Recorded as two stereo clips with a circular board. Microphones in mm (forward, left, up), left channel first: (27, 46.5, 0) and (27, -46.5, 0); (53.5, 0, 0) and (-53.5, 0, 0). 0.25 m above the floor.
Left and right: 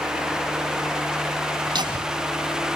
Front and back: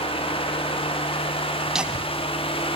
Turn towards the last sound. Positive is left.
turn(degrees=-130)